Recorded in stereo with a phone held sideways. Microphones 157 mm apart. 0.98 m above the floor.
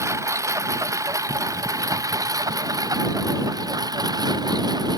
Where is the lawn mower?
20° right (ahead or behind); by 5.0 s 25° right (ahead or behind).